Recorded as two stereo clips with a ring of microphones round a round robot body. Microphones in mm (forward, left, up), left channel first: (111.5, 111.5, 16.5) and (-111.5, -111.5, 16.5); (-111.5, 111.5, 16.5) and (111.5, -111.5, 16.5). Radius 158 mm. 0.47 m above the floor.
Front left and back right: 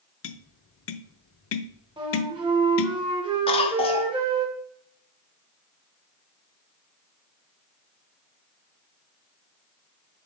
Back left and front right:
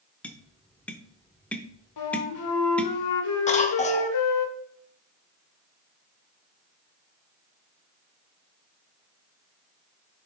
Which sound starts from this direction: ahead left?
Tapping, at 0.2 s.